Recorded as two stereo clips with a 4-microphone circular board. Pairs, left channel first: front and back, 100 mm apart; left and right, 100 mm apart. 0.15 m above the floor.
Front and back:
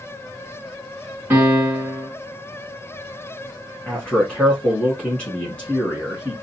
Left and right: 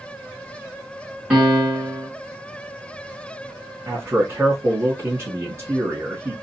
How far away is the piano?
About 1.6 m.